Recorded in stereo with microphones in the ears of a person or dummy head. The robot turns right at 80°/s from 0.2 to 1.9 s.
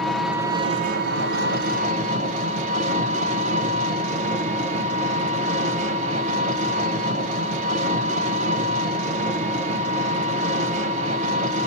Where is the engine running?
Straight behind, 0.7 m; by 11.7 s 45° right, 0.7 m.